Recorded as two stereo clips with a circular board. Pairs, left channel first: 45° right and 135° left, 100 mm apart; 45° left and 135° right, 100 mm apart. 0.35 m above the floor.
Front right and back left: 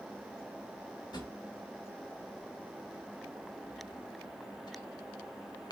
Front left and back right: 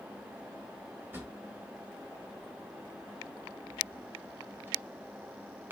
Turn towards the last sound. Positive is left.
turn(degrees=-70)